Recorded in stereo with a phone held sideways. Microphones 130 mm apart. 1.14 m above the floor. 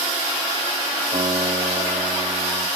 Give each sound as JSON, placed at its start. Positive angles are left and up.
{"t": 1.1, "sound": "a guitar", "side_deg": -90, "distance_m": 4.0}